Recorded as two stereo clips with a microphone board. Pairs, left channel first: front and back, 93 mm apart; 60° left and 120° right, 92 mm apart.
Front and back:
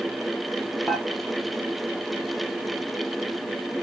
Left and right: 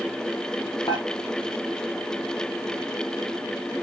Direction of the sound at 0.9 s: 90° left.